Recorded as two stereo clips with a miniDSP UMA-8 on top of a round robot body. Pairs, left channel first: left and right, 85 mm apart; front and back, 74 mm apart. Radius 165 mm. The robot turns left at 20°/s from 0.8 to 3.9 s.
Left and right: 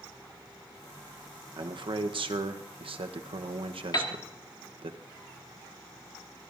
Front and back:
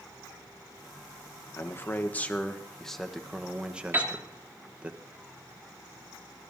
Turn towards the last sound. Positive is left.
turn(degrees=120)